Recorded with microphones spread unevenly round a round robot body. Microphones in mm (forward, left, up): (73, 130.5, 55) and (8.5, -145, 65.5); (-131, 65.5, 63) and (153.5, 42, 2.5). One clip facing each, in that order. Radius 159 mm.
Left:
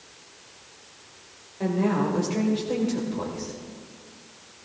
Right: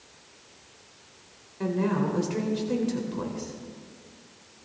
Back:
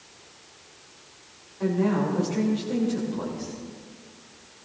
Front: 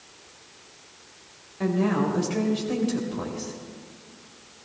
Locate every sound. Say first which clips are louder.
1.6 s a woman speaking: left 2 dB, even; 40° right, 3 m